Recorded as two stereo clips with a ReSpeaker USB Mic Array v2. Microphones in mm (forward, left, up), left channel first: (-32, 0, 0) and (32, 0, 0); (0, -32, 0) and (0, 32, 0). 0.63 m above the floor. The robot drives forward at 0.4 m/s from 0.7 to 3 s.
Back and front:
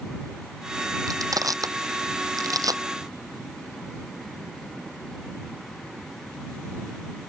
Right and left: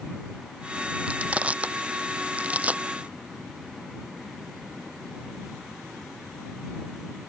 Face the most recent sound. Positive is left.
turn(degrees=20)